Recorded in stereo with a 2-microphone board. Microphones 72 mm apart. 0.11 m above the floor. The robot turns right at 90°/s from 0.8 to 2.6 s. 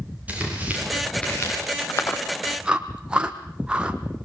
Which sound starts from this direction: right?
Tearing paper, at 0.3 s.